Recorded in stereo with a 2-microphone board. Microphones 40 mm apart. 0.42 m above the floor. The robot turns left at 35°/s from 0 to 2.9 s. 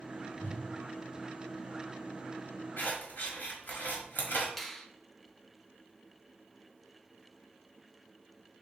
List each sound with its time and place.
0.4 s a whoosh: 50° left (ahead or behind), 2 m; by 0.6 s 45° left (ahead or behind), 2 m
2.8 s scissors: 55° left (ahead or behind), 1.3 m; by 4.5 s 50° left (ahead or behind), 1.3 m
4.6 s a finger snap: 5° left (ahead or behind), 0.7 m